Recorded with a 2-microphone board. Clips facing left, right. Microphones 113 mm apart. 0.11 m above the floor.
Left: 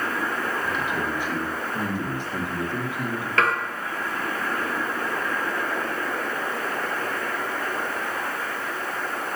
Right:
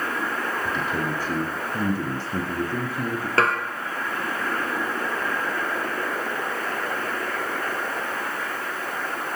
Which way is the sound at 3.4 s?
35° right (ahead or behind).